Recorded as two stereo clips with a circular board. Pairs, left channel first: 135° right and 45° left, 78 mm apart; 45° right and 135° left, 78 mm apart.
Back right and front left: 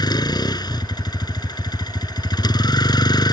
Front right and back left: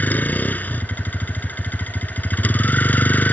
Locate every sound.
0.0 s a vehicle: 110° right